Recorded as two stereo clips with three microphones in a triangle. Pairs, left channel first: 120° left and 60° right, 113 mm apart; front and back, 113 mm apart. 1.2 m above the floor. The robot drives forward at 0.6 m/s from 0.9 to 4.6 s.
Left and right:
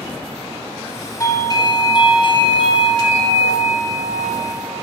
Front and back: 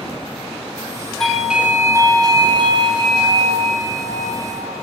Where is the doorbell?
85° left, 0.9 m; by 4.8 s 165° left, 2 m.